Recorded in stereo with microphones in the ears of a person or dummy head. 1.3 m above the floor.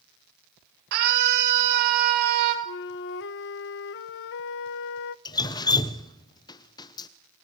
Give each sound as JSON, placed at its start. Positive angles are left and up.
{"t": 0.9, "sound": "a scream", "side_deg": -55, "distance_m": 6.0}
{"t": 2.6, "sound": "a flute", "side_deg": 55, "distance_m": 0.6}
{"t": 5.2, "sound": "dripping", "side_deg": 25, "distance_m": 0.8}